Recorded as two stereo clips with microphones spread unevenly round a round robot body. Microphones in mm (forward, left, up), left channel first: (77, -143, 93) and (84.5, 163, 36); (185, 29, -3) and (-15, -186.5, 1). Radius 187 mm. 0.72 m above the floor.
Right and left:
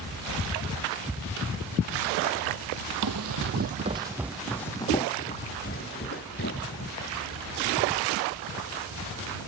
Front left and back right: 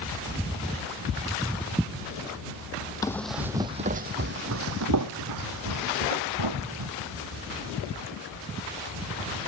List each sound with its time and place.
3.0 s running footsteps: 125° left; by 6.9 s 145° right